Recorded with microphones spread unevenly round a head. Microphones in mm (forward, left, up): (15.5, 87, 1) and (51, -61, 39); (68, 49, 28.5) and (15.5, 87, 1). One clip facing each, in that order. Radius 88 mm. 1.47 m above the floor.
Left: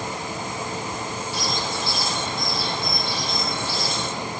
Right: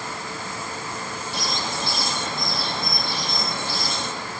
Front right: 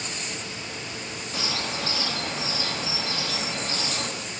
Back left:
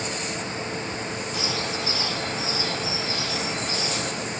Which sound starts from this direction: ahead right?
A bird, at 1.3 s.